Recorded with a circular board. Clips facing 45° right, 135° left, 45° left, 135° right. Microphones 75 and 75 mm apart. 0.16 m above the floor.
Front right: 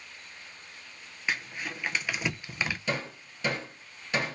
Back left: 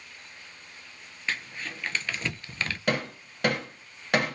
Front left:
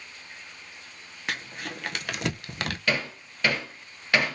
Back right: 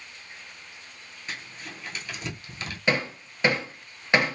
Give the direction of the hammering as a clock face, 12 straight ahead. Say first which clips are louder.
Back left 4 dB, back right 4 dB; 7 o'clock.